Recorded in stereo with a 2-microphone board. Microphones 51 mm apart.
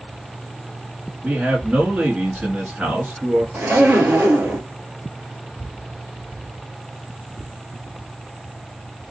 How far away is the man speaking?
About 1.2 m.